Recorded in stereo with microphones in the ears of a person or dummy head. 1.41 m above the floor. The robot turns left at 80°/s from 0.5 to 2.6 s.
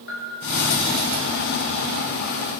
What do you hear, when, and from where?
0.1 s a bell: 70° left (ahead or behind), 3 m